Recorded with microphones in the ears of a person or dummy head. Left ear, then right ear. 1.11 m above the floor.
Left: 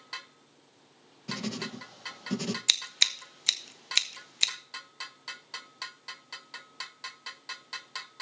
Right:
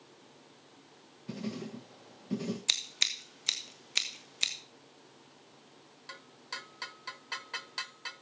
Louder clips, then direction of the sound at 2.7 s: Left 5 dB; 15° left (ahead or behind).